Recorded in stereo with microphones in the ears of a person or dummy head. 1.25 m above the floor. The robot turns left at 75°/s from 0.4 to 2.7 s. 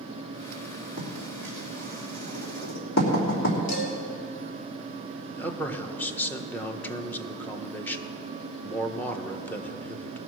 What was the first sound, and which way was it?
Writing, 50° right (ahead or behind).